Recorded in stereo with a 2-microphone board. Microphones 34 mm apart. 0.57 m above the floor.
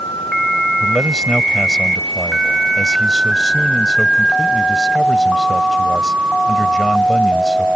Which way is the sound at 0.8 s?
15° left (ahead or behind).